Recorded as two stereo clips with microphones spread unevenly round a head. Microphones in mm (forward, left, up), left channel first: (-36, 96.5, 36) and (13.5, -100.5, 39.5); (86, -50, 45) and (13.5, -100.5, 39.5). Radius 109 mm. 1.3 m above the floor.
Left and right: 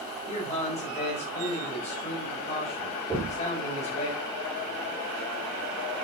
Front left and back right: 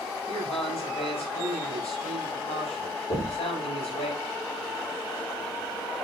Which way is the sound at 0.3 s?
45° left.